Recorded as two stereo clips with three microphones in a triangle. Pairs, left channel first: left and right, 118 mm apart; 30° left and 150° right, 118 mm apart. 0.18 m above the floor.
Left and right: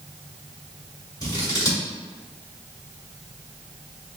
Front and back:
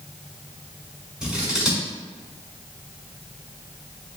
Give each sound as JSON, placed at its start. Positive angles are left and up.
{"t": 1.2, "sound": "scissors", "azimuth_deg": 130, "distance_m": 1.5}